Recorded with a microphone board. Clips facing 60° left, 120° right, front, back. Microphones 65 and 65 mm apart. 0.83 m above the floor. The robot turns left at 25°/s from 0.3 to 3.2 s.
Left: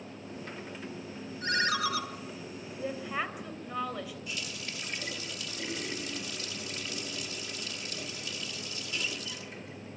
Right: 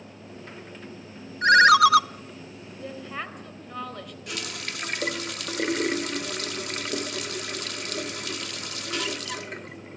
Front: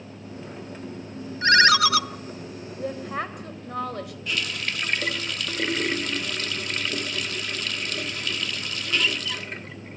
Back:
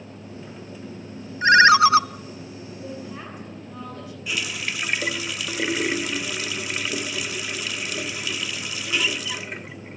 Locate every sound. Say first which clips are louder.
1.4 s a ringtone: right 15 dB, back 5 dB; 105° right, 0.5 m; by 2.0 s 120° right, 0.5 m
2.8 s a woman speaking: left 1 dB, front 7 dB; 15° right, 3.5 m; by 4.2 s 25° right, 3.5 m
4.3 s a running tap: right 5 dB, back 1 dB; 100° right, 0.9 m